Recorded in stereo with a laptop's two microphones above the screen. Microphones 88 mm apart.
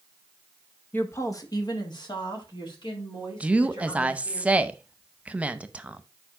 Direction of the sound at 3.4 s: 15° right (ahead or behind).